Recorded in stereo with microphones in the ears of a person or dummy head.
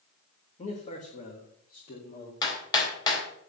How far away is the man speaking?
About 1.6 m.